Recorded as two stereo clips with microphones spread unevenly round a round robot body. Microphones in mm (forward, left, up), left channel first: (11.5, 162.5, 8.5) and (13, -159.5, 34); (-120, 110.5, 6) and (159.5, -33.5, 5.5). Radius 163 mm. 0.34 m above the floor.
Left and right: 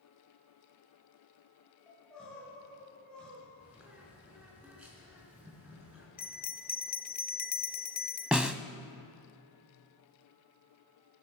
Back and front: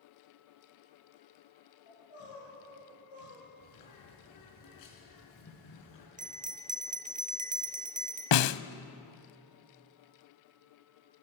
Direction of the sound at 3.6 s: 175° right.